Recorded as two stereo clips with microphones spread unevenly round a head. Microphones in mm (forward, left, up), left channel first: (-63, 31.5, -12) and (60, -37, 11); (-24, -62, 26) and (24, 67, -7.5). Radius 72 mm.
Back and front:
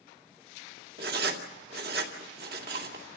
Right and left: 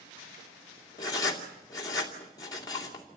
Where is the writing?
45° right, 2.5 m.